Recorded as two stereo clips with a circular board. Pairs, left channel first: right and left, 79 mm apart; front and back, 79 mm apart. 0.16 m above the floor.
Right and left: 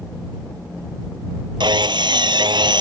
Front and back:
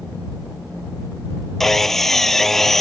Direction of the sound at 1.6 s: 85° left.